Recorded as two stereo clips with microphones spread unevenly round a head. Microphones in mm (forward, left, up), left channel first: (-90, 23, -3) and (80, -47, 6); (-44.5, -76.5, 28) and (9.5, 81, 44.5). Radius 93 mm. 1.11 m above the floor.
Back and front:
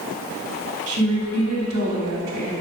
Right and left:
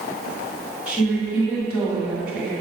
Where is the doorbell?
No doorbell in this recording.